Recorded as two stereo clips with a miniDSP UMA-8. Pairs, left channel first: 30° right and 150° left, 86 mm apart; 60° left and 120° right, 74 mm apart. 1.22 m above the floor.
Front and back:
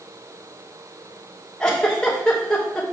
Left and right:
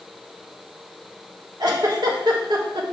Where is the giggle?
110° right, 1.6 m.